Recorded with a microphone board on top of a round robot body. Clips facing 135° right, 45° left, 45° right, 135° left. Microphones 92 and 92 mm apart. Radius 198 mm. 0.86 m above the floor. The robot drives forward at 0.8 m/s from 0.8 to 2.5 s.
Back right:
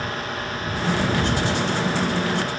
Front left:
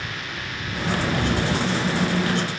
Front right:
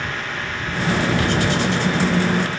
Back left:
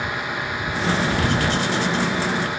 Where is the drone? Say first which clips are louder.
Back right 5 dB, back left 1 dB; 155° right.